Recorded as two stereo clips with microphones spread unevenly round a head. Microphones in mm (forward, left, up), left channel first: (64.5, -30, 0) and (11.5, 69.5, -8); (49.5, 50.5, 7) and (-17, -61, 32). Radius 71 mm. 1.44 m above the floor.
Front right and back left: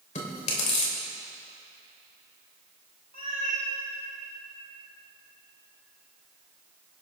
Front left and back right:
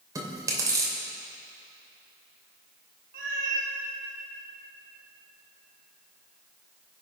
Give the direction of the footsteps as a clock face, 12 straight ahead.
No footsteps in this recording.